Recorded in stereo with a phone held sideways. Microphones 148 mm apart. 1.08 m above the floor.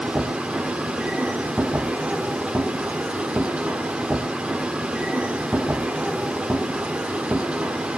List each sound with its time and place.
0.0 s a machine running: 10° right (ahead or behind), 0.7 m